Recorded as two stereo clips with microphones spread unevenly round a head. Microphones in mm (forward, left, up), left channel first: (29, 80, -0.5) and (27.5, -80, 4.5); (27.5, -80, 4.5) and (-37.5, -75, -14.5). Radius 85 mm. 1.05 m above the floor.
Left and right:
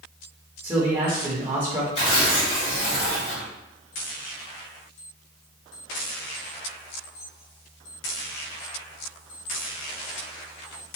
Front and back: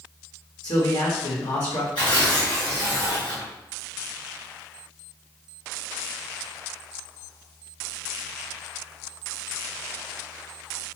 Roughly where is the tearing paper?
Ahead left.